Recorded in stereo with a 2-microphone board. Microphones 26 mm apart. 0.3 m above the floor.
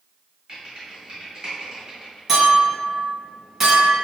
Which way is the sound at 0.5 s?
35° right (ahead or behind).